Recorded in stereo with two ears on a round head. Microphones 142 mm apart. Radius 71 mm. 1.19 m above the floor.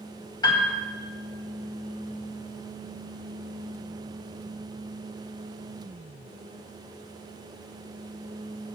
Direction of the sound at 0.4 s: 25° left (ahead or behind).